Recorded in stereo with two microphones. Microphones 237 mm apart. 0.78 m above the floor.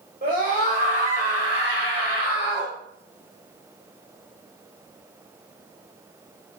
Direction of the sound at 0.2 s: 40° right (ahead or behind).